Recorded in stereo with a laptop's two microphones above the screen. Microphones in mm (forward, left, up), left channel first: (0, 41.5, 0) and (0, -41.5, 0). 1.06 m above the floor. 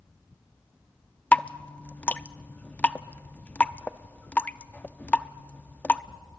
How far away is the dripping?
About 0.5 m.